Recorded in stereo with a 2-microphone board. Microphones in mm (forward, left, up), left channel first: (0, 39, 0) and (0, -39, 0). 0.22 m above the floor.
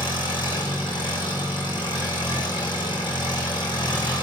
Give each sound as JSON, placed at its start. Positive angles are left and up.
{"t": 0.0, "sound": "an engine running", "side_deg": 75, "distance_m": 6.5}